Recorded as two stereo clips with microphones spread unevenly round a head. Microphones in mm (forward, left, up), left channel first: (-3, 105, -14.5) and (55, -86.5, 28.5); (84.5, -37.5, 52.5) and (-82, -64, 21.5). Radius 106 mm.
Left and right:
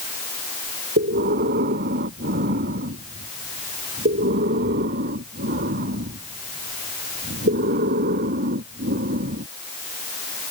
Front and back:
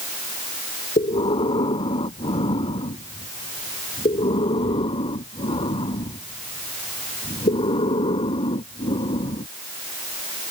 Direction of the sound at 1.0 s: 45° right.